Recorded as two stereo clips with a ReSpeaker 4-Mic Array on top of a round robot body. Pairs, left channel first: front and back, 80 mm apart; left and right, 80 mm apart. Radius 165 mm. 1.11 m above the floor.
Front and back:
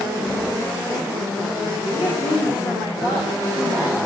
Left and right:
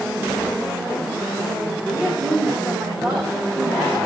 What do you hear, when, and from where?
1.9 s a woman speaking: 15° right, 6 m